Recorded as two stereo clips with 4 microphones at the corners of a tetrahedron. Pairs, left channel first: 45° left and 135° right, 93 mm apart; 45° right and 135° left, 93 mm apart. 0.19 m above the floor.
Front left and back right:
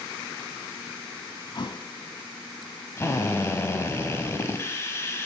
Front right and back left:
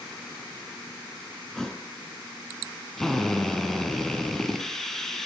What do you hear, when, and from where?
1.5 s a thud: 40° left, 0.9 m
3.0 s a drill: 35° left, 1.1 m